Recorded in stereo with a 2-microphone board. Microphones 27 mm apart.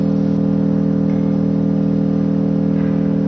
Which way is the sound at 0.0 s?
40° right (ahead or behind).